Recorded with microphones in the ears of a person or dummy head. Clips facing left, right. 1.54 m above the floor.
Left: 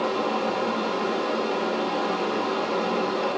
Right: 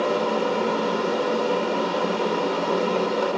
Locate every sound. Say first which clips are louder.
0.0 s a fan: right 3 dB; 65° right (ahead or behind), 4.5 m